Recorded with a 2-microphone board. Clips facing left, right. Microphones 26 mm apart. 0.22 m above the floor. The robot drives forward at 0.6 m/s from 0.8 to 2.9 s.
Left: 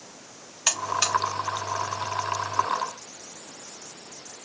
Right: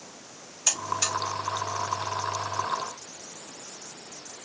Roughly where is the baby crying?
No baby crying in this recording.